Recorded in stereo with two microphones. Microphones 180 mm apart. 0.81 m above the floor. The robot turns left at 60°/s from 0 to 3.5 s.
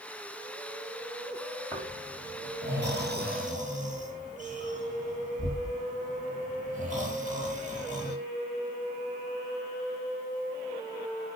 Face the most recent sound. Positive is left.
turn(degrees=-45)  # may be behind; listen again after turning